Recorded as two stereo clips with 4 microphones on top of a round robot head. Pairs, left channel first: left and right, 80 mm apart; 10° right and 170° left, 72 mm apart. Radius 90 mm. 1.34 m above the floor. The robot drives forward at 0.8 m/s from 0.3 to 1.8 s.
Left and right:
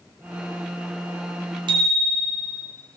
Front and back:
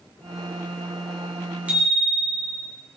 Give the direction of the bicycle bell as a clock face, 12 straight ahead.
4 o'clock.